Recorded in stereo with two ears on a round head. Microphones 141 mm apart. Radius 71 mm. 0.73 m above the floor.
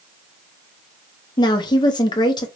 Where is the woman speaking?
30° left (ahead or behind), 0.7 m.